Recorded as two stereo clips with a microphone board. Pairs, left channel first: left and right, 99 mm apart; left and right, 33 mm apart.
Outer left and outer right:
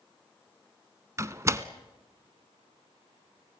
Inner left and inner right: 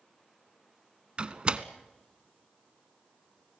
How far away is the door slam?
About 0.8 m.